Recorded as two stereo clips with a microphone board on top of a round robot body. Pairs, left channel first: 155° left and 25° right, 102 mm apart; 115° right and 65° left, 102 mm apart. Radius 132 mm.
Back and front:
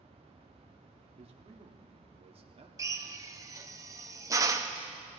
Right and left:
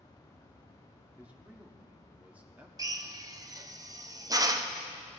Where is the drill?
25° left, 0.9 m.